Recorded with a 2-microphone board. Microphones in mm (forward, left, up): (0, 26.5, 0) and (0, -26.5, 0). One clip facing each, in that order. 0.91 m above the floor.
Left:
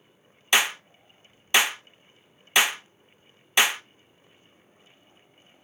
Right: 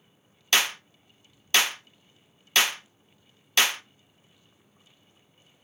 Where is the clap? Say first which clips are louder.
Left 2 dB; 15° left (ahead or behind), 0.5 m.